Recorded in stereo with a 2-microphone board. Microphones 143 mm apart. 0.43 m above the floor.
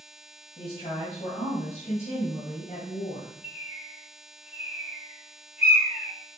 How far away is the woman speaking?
About 2.5 m.